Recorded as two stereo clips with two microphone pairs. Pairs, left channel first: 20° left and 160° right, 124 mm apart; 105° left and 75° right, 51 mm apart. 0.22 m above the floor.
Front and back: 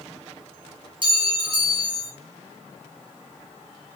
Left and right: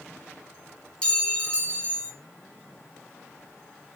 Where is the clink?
170° left, 0.8 m.